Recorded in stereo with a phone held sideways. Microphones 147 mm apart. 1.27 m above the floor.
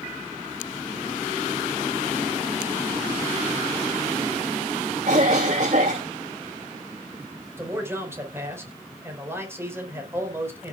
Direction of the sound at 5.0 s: 55° right (ahead or behind).